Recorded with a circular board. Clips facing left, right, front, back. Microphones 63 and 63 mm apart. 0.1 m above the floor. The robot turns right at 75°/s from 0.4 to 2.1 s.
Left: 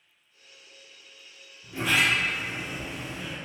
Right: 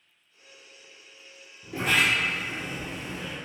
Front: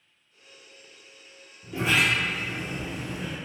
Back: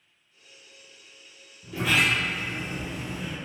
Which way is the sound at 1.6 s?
75° right.